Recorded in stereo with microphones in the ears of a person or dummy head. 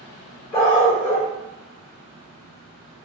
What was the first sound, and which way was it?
A dog barking, 25° left (ahead or behind).